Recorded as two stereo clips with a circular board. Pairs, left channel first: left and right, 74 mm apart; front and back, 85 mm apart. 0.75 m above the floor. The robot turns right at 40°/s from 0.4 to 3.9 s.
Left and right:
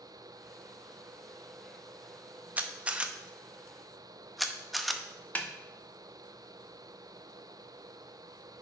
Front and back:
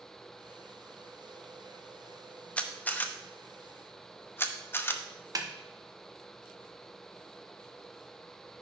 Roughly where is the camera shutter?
Ahead right.